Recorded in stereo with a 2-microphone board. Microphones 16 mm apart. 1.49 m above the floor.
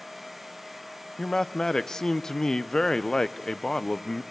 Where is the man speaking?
35° left (ahead or behind), 0.6 m.